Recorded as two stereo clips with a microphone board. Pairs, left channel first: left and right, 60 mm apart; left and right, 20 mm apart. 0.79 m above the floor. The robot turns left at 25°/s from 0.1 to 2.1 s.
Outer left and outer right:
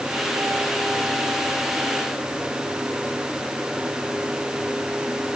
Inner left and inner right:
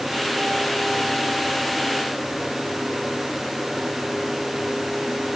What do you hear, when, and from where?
Only background noise.